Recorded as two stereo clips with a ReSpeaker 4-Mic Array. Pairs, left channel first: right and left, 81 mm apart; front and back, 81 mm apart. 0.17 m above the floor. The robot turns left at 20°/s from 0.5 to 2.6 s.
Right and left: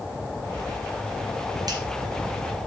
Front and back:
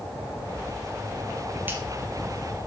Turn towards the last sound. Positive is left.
turn(degrees=100)